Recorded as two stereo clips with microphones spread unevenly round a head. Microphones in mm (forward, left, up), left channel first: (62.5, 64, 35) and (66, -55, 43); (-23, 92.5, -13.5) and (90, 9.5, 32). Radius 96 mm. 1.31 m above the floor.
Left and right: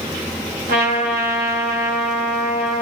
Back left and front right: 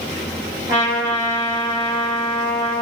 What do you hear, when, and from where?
0.7 s a trumpet: 105° right, 4 m